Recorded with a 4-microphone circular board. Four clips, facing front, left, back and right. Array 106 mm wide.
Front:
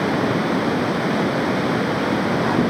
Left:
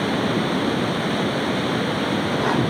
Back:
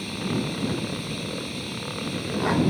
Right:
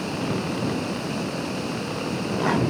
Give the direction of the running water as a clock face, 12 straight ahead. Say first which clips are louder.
Left 6 dB, front 9 dB; 11 o'clock.